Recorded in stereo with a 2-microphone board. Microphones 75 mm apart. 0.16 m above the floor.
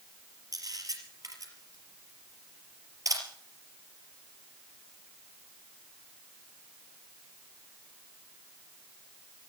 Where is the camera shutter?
55° right (ahead or behind), 4.5 m.